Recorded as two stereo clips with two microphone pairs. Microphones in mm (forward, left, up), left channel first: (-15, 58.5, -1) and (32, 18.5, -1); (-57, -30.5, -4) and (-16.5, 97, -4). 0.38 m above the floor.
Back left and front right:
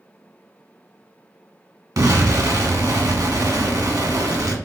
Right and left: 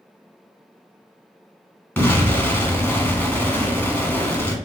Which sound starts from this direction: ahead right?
An explosion, at 2.0 s.